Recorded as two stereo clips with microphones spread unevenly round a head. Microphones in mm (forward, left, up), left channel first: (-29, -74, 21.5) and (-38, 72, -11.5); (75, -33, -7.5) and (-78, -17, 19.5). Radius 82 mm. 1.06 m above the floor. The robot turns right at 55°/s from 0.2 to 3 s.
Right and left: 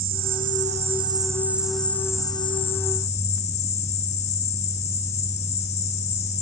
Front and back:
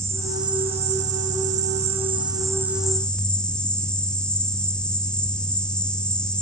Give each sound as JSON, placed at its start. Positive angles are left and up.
{"t": 0.0, "sound": "an insect", "azimuth_deg": 110, "distance_m": 0.9}